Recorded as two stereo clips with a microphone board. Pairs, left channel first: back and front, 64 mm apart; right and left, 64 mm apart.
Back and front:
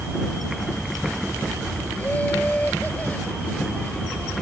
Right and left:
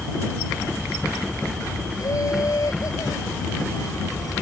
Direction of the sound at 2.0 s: 115° right.